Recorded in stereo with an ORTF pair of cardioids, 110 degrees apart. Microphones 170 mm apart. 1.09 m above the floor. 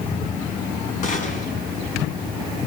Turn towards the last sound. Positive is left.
turn(degrees=50)